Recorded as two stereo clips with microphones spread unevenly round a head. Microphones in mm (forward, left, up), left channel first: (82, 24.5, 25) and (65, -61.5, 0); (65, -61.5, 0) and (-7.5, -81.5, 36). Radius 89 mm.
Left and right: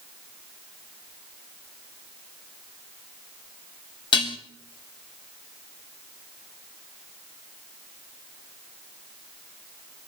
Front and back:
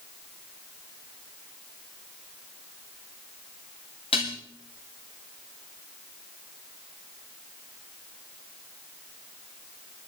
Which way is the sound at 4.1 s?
75° left.